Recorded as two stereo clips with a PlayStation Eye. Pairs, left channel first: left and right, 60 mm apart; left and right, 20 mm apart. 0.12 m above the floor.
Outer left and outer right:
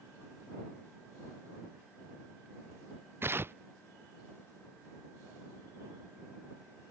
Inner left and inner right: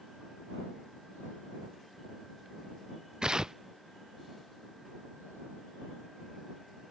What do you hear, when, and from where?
3.2 s tearing paper: 40° right (ahead or behind)